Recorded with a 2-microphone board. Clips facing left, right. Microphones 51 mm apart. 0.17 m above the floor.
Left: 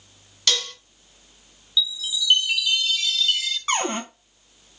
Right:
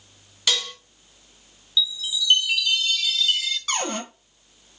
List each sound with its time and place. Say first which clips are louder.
0.5 s dishes clattering: even; 10° right (ahead or behind), 0.8 m
1.8 s a chime: even; centre (ahead or behind), 0.8 m
3.7 s a cupboard door: left 4 dB; 30° left (ahead or behind), 0.8 m